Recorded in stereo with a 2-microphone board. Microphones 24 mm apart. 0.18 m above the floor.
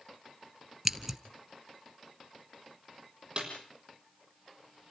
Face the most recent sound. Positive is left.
turn(degrees=-35)  # may be behind; listen again after turning